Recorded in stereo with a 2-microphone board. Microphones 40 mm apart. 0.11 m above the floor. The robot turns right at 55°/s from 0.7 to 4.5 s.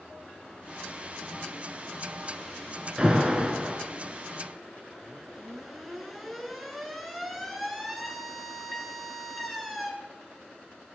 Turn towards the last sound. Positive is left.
turn(degrees=0)  # may be behind; listen again after turning